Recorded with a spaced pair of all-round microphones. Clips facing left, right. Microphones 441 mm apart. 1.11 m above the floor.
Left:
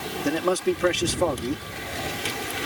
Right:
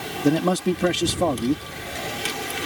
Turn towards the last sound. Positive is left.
turn(degrees=-55)  # may be behind; listen again after turning